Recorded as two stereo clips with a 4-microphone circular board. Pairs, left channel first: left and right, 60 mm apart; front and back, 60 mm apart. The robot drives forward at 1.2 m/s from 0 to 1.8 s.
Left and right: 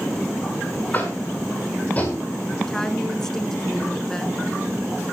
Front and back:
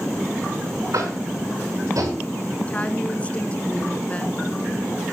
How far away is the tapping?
About 6 m.